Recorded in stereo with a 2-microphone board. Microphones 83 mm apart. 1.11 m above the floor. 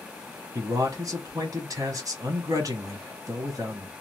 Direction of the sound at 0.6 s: 45° right (ahead or behind).